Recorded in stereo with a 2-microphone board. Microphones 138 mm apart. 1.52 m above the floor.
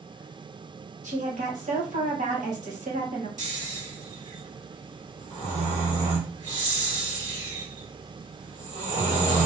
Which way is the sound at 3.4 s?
60° right (ahead or behind).